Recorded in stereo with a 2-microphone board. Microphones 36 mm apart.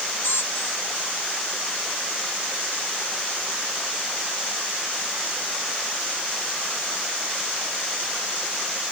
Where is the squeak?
80° left.